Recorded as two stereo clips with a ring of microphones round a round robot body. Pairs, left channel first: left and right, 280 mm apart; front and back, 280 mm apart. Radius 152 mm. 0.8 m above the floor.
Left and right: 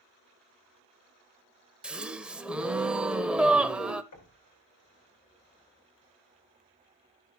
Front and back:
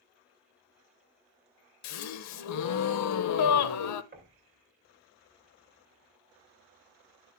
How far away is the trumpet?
No trumpet in this recording.